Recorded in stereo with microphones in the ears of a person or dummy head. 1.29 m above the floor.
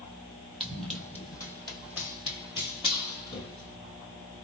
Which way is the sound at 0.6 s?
Centre (ahead or behind).